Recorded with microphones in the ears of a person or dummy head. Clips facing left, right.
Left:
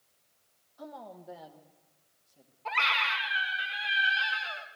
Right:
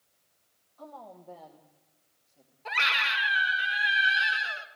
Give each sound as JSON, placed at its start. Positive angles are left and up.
{"t": 0.8, "sound": "a woman speaking", "side_deg": 15, "distance_m": 0.8}
{"t": 2.6, "sound": "a scream", "side_deg": -20, "distance_m": 2.0}